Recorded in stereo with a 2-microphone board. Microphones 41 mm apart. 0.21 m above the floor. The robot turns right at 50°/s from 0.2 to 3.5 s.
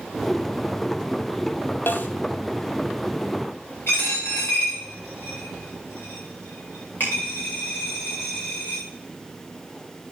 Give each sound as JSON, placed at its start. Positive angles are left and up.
{"t": 1.9, "sound": "a snare drum", "side_deg": 60, "distance_m": 0.9}
{"t": 3.9, "sound": "a dropped coin", "side_deg": 75, "distance_m": 5.0}